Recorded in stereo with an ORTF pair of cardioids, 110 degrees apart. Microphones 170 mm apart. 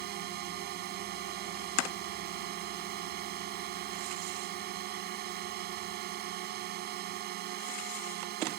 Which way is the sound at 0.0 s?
70° right.